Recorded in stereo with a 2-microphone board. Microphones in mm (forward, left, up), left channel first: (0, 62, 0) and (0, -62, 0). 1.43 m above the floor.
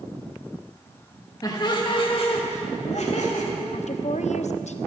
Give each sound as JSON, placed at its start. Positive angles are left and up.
{"t": 1.4, "sound": "laughter", "side_deg": 30, "distance_m": 2.0}
{"t": 3.7, "sound": "a woman speaking", "side_deg": 65, "distance_m": 0.8}